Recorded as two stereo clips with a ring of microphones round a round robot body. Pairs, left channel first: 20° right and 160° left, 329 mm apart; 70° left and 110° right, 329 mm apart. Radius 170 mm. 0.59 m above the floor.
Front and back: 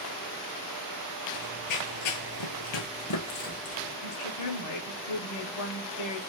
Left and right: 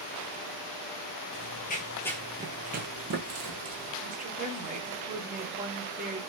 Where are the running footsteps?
20° left, 1.2 m; by 3.9 s 75° right, 1.9 m.